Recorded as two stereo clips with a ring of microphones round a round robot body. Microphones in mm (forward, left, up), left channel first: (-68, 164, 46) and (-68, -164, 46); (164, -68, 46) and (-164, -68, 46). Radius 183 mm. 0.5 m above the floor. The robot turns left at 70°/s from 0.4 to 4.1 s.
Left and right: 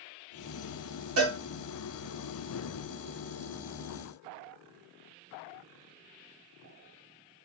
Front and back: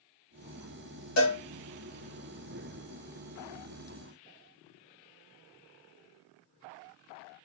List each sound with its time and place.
1.2 s a cowbell: 40° right, 1.9 m; by 1.4 s 55° right, 1.9 m